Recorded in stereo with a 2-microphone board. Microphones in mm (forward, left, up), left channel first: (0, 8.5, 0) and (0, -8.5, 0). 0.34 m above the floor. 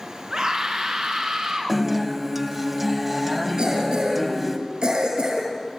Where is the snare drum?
No snare drum in this recording.